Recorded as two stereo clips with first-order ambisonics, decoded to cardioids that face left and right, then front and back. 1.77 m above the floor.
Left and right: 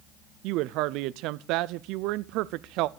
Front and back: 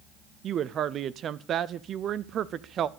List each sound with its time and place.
0.4 s a woman speaking: 120° right, 0.6 m